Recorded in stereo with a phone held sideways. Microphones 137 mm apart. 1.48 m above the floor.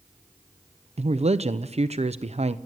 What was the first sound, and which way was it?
A man speaking, 50° right (ahead or behind).